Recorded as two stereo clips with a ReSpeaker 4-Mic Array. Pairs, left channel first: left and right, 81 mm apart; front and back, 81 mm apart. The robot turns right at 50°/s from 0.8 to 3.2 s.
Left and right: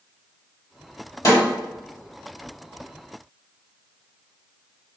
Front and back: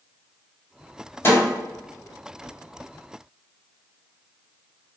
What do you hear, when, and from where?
1.2 s a snare drum: 55° left, 1.7 m; by 1.4 s 65° left, 1.7 m